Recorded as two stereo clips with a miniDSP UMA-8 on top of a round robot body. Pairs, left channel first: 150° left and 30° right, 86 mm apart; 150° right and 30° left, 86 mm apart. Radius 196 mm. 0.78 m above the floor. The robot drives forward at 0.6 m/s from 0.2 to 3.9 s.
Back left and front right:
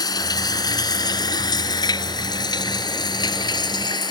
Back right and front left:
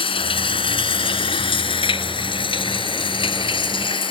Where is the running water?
165° right; by 4.1 s 170° right.